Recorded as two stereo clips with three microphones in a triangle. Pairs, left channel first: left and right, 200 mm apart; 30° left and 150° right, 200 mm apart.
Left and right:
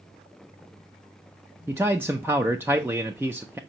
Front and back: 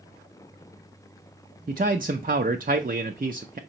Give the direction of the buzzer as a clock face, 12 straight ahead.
I don't hear a buzzer.